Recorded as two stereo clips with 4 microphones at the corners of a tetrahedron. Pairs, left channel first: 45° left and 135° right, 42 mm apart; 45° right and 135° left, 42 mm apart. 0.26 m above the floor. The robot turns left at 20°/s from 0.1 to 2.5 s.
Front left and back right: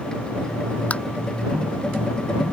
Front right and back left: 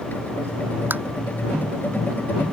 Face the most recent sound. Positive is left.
turn(degrees=70)